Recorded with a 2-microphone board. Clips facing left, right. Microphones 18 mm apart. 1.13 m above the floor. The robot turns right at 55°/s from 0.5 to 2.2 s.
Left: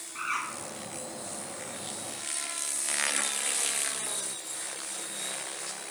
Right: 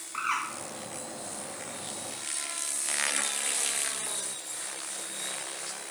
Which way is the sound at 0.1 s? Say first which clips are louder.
Right 2 dB; 65° right (ahead or behind).